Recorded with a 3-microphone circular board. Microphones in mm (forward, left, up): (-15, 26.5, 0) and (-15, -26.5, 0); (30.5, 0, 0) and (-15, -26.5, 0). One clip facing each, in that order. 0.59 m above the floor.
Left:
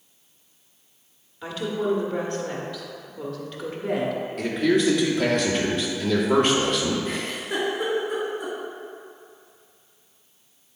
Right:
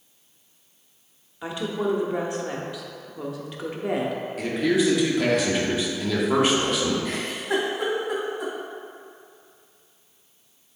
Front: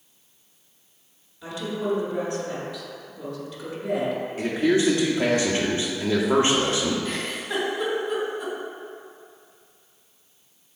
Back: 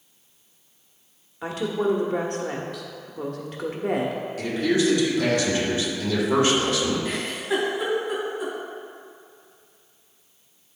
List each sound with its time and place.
1.4 s a woman speaking: 160° right, 1.2 m
4.4 s a man speaking: 5° right, 1.5 m
7.0 s a giggle: 70° right, 2 m